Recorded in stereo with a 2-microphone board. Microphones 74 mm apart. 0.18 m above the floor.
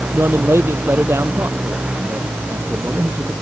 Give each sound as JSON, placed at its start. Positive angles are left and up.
{"t": 0.1, "sound": "a man speaking", "side_deg": -35}